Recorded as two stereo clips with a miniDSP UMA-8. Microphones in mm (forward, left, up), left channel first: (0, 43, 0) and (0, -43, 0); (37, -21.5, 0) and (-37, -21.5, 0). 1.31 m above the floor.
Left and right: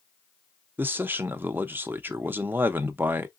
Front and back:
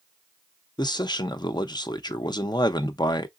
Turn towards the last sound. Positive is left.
turn(degrees=-25)